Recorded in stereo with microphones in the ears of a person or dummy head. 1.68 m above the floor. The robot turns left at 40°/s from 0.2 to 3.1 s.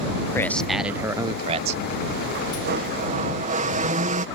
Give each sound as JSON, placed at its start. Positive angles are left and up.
{"t": 0.3, "sound": "a man speaking", "azimuth_deg": 20}
{"t": 2.6, "sound": "a blender", "side_deg": -60}